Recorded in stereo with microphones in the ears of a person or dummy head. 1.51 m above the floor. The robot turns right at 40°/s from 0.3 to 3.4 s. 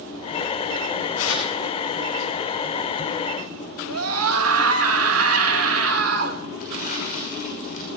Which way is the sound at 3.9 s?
85° right.